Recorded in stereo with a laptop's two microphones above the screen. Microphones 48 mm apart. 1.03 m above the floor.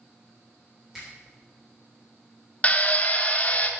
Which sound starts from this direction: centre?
A finger snap, at 0.9 s.